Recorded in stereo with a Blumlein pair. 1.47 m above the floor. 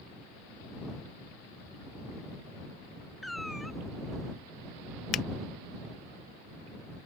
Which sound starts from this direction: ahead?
A cat meowing, at 3.2 s.